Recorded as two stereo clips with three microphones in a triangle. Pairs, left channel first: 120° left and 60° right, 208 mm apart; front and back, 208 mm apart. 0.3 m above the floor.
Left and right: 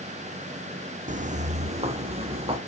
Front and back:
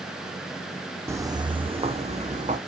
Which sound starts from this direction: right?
Footsteps, at 1.1 s.